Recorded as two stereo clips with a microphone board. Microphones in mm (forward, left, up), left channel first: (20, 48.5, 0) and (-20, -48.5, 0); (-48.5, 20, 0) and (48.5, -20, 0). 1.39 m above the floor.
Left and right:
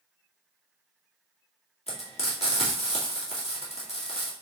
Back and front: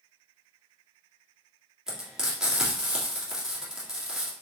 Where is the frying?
65° left, 1.8 m.